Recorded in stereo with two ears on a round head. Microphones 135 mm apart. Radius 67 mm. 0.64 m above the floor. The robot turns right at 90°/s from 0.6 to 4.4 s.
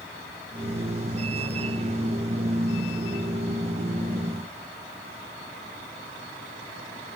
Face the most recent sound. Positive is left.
No sound to turn to.